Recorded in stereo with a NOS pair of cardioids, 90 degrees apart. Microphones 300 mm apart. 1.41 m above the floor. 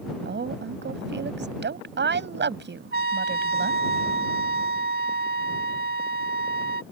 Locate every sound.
0.2 s a woman speaking: 35° right
2.9 s a trumpet: 35° right